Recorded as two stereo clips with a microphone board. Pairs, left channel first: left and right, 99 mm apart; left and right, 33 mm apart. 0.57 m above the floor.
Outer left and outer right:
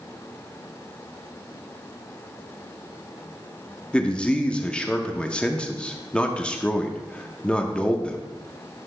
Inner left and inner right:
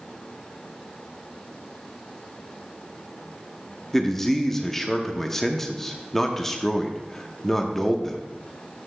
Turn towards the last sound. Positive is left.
turn(degrees=10)  # may be behind; listen again after turning